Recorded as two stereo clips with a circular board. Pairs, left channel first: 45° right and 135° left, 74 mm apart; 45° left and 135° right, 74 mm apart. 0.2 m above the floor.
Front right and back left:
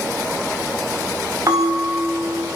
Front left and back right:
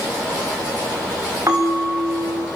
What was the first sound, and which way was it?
A bell, 175° left.